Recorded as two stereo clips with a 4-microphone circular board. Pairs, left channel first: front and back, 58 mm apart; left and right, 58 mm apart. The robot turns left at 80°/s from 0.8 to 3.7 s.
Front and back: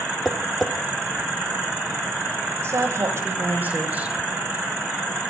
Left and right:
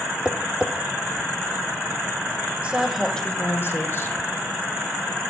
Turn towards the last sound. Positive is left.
turn(degrees=120)